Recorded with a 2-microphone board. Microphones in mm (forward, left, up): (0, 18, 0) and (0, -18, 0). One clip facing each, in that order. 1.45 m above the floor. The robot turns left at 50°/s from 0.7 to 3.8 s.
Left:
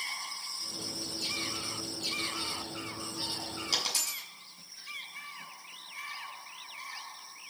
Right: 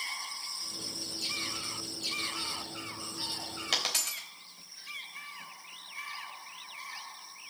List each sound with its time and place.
3.7 s a dropped coin: 55° right (ahead or behind), 3.5 m; by 4.2 s 60° right (ahead or behind), 3.5 m